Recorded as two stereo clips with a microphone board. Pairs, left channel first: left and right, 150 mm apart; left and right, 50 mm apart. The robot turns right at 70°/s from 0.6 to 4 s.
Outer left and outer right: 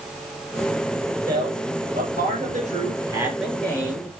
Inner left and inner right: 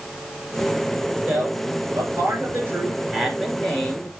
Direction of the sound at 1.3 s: 155° right.